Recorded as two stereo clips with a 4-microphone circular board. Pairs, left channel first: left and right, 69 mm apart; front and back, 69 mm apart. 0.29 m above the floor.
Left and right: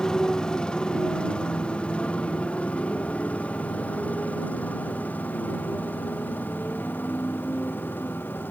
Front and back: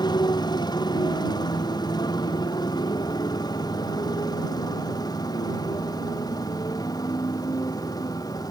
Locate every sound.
0.0 s a motorcycle: 10° left; by 8.5 s 25° left